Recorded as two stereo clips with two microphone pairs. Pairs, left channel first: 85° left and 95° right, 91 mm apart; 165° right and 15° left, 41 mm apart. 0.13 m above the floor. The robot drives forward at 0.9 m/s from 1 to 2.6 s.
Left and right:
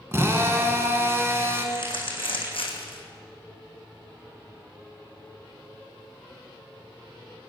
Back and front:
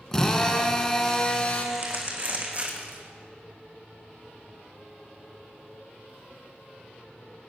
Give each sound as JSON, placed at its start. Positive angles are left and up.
{"t": 0.1, "sound": "a drill", "azimuth_deg": -100, "distance_m": 1.6}
{"t": 1.8, "sound": "crumpling", "azimuth_deg": 60, "distance_m": 3.5}